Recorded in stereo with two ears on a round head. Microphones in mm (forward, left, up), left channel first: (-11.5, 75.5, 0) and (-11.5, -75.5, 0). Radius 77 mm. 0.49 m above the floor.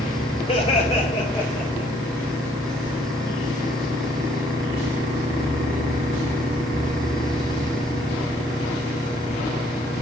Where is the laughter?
30° left (ahead or behind), 3 m; by 1.9 s centre (ahead or behind), 2.5 m.